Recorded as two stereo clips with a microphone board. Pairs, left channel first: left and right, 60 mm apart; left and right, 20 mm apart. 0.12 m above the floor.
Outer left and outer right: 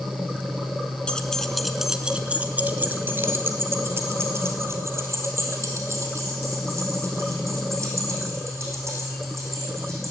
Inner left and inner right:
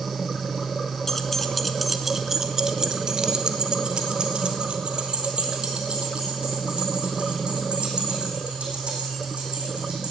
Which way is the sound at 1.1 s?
15° left (ahead or behind).